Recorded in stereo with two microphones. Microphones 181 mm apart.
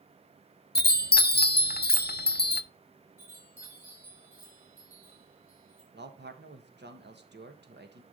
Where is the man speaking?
75° right (ahead or behind), 1.5 m.